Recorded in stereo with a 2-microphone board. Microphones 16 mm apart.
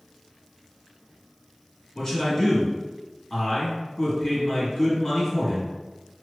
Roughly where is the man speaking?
Left.